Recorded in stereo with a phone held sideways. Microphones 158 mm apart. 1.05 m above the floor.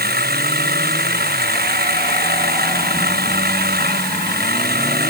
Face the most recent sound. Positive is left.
turn(degrees=-70)  # may be behind; listen again after turning